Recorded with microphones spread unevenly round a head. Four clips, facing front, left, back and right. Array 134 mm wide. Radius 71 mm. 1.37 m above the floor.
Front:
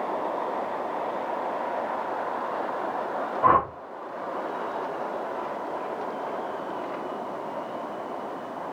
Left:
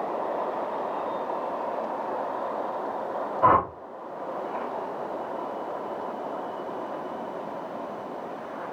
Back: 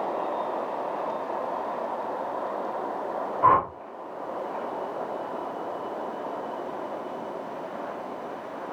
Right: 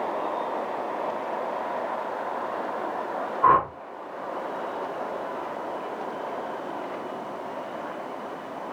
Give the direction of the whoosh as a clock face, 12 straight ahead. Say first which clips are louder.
Right 1 dB, even; 9 o'clock.